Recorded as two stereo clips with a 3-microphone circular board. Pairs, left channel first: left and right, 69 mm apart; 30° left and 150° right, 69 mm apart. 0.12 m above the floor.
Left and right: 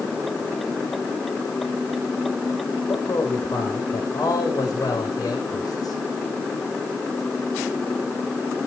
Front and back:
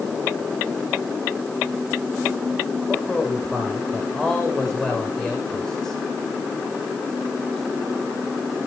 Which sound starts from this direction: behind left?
A man speaking, at 2.9 s.